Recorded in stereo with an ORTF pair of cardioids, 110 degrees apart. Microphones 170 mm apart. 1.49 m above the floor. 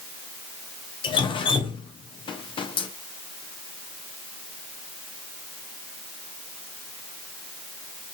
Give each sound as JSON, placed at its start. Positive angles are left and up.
{"t": 1.0, "sound": "dripping", "azimuth_deg": 30, "distance_m": 0.5}